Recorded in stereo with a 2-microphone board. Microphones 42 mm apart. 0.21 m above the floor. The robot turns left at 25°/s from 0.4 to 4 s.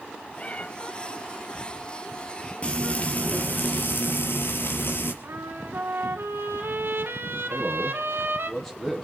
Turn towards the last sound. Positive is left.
turn(degrees=15)  # may be behind; listen again after turning